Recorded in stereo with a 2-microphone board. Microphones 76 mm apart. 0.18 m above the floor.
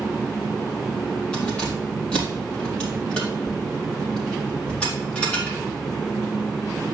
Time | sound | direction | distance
1.3 | keys jangling | 15° left (ahead or behind) | 4 m